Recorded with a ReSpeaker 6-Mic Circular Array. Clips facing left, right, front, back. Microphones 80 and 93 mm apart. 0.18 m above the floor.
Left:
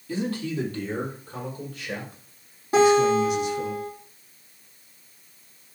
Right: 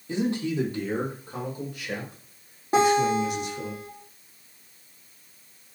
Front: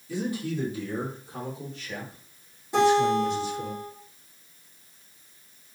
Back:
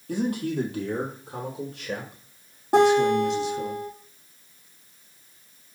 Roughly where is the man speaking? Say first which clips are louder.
Right 2 dB, back 4 dB; behind right.